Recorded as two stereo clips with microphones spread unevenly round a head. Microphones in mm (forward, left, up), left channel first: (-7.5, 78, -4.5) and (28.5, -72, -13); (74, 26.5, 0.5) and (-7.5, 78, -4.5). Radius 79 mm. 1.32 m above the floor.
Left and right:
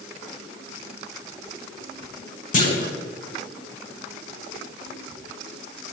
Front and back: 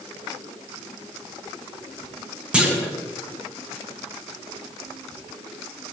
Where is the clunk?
70° left, 3 m.